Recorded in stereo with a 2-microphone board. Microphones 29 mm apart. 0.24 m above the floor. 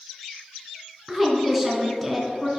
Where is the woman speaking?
10° left (ahead or behind), 2.5 m.